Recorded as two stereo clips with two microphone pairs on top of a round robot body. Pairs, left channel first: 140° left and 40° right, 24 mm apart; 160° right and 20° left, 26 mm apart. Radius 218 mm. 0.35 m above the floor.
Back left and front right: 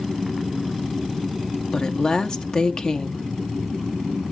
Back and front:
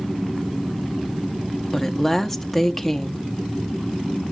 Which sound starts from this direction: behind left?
A woman speaking, at 1.7 s.